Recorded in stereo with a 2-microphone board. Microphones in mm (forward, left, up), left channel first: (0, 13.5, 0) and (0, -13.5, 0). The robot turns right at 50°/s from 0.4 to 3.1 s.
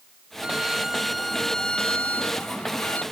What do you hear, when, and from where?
0.4 s a violin: 40° right; by 3.0 s 90° left